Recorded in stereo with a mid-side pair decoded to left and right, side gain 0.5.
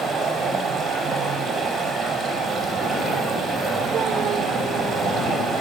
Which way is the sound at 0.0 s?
50° right.